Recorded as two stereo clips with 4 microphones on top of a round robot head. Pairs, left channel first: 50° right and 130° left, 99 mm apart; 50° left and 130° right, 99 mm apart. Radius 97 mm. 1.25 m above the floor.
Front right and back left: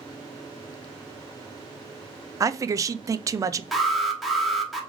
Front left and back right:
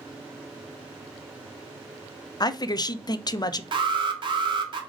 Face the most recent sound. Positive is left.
turn(degrees=-140)